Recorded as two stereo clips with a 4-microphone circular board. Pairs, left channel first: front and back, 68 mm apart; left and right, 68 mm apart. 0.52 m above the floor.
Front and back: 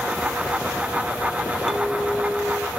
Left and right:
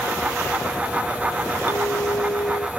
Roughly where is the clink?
Left.